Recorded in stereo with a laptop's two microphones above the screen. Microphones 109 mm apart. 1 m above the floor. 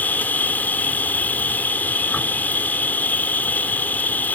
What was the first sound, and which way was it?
An insect, 15° left (ahead or behind).